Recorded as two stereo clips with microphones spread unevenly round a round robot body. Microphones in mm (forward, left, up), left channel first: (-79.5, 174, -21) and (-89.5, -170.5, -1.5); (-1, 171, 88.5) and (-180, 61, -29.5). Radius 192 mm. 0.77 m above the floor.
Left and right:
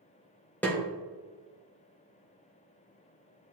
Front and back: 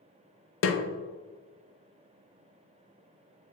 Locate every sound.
0.6 s a snare drum: 15° left, 0.8 m